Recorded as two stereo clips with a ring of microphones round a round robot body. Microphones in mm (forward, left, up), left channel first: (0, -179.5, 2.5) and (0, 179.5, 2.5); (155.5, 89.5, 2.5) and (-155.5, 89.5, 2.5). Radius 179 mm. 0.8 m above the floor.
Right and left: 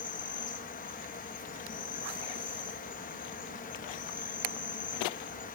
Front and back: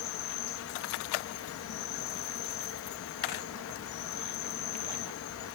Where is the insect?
30° right, 0.9 m.